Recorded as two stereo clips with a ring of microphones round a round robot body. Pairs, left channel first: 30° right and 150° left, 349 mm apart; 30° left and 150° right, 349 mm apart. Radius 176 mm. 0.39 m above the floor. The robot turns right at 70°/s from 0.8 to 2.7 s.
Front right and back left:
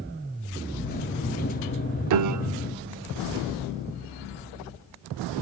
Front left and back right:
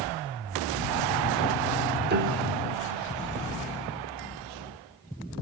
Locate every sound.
2.1 s a piano: 155° left, 0.6 m; by 3.0 s 165° right, 0.6 m